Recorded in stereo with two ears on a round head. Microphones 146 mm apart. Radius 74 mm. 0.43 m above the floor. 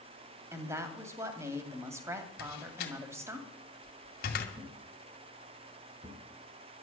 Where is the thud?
20° right (ahead or behind), 2.5 m.